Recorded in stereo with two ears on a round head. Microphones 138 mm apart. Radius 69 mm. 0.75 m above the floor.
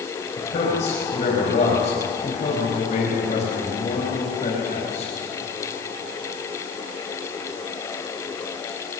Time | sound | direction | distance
0.4 | a man speaking | 45° left (ahead or behind) | 5 m